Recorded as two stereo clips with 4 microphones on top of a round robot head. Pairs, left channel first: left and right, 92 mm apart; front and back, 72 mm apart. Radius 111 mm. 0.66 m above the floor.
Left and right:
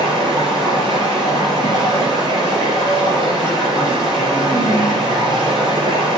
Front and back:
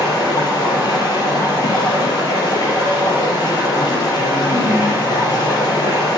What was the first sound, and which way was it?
Running water, 45° right.